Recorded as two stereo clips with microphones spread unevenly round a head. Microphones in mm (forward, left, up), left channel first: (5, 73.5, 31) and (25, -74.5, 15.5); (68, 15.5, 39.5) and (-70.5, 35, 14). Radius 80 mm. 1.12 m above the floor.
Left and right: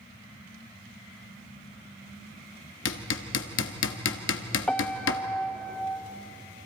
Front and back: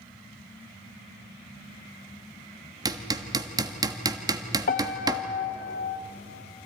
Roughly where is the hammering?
Left.